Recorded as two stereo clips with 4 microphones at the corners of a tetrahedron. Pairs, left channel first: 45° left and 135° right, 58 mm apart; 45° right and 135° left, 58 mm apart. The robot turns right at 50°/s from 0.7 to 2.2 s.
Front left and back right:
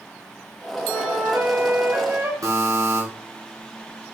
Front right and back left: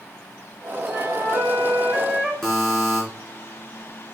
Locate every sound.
0.9 s a flute: 155° left, 2.5 m; by 2.3 s 135° right, 2.5 m
2.4 s a buzzer: 125° right, 3.5 m